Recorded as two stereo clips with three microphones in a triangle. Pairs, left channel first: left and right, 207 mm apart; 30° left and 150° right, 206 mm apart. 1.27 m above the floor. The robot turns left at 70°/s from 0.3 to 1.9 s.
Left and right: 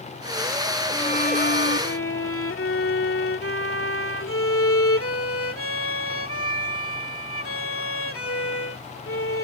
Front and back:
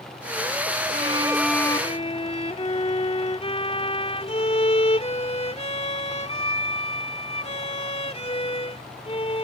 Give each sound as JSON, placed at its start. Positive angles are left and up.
{"t": 0.9, "sound": "a violin", "azimuth_deg": 160}